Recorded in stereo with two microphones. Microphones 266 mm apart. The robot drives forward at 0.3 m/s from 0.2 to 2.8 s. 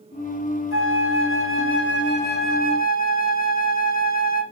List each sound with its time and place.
0.7 s a flute: 55° left (ahead or behind), 0.5 m; by 4.4 s 30° left (ahead or behind), 0.8 m